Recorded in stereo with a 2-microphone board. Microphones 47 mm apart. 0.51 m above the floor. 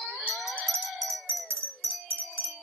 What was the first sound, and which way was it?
A bell, 60° right (ahead or behind).